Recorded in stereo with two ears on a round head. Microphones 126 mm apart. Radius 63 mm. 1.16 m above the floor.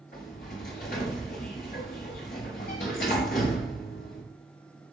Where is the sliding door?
70° left (ahead or behind), 6 m.